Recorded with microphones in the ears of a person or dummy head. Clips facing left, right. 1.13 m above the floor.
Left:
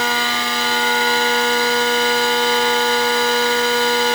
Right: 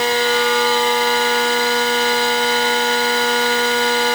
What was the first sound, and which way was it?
Only background noise.